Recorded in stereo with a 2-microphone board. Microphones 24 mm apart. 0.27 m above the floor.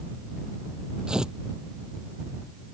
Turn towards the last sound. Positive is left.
turn(degrees=-35)  # may be behind; listen again after turning